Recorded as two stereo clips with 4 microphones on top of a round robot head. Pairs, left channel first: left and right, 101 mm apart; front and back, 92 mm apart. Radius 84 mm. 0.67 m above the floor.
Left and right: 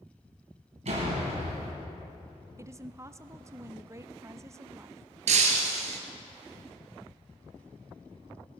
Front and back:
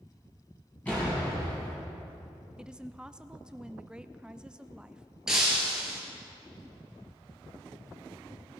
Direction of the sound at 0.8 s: 80° right.